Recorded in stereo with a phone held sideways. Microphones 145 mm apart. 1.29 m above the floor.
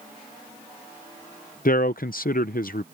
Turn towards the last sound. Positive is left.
turn(degrees=70)  # may be behind; listen again after turning